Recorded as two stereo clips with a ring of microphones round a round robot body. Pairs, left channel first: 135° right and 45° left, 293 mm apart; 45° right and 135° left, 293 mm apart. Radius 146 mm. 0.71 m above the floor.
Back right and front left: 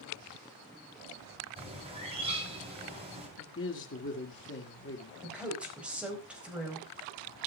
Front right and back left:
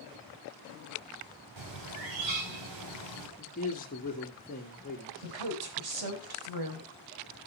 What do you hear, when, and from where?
1.6 s a bird: 115° left, 4 m
3.4 s a man speaking: 100° right, 1.6 m
5.2 s a woman speaking: 130° left, 4 m